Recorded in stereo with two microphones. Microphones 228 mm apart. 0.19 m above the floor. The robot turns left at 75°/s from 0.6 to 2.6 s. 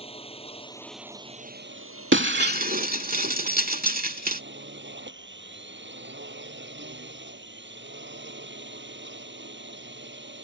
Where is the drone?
25° left; by 10.4 s 125° right.